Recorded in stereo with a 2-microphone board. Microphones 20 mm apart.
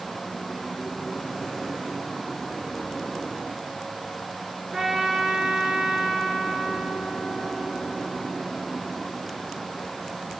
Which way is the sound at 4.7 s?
25° right (ahead or behind).